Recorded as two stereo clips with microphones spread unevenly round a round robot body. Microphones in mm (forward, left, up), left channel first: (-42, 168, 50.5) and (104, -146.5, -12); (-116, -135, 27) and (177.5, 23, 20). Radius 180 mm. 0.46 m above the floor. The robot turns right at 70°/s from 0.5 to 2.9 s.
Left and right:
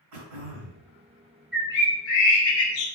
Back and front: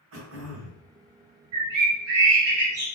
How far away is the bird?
About 1.1 m.